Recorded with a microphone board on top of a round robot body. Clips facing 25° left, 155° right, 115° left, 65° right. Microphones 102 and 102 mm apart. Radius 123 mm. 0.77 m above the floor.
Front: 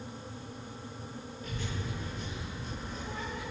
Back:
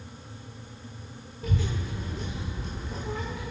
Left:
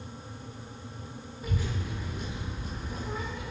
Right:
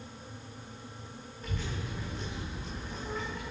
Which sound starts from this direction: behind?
A child speaking, at 1.4 s.